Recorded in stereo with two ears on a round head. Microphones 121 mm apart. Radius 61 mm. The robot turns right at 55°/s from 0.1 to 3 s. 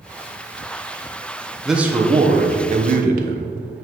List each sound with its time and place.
1.6 s a man speaking: straight behind, 1.0 m; by 3.5 s 105° right, 1.0 m